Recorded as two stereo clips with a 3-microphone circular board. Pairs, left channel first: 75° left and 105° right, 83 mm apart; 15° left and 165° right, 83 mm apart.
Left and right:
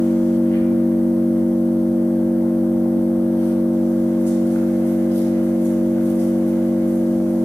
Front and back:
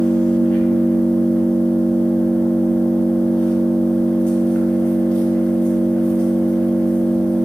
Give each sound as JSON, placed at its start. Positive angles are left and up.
{"t": 0.0, "sound": "an engine running", "azimuth_deg": 70, "distance_m": 0.7}